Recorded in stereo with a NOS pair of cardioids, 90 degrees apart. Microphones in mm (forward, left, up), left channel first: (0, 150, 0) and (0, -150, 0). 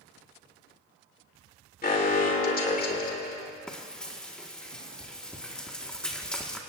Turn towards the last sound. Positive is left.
turn(degrees=5)